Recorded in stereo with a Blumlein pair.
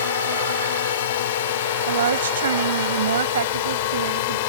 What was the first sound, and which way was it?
A drone, 60° left.